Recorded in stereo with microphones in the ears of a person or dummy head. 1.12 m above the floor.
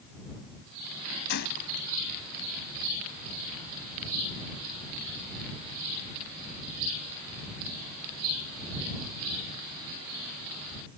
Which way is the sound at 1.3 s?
55° left (ahead or behind).